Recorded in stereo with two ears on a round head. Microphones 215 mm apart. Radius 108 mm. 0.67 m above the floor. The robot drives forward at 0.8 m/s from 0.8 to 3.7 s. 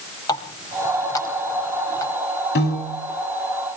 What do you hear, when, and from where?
0.3 s a running tap: 15° left (ahead or behind), 4 m
2.5 s a piano: 45° left (ahead or behind), 5.5 m